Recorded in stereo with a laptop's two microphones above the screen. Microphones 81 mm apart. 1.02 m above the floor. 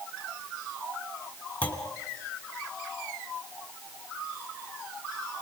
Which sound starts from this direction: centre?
A clunk, at 1.6 s.